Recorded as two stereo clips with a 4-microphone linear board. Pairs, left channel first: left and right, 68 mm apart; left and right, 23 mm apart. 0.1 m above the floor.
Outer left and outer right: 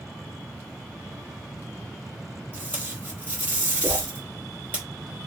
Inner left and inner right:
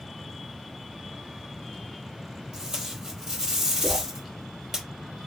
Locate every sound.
2.5 s tape being pulled: 25° right (ahead or behind), 3.5 m
3.8 s a whoosh: 20° right (ahead or behind), 3 m